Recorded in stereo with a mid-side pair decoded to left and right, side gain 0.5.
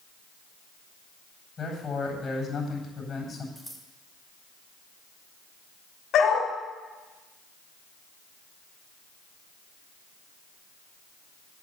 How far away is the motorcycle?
No motorcycle in this recording.